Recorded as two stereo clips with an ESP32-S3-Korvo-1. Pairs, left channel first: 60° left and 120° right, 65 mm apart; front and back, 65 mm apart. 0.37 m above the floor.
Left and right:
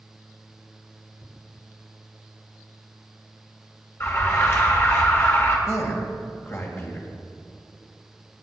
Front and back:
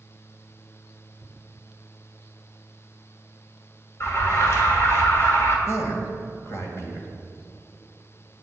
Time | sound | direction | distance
4.0 | an alarm | 30° left | 2 m
5.7 | a man speaking | 30° left | 2.5 m